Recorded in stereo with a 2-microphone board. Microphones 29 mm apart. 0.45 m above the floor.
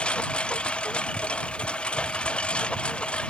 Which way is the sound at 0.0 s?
45° left (ahead or behind).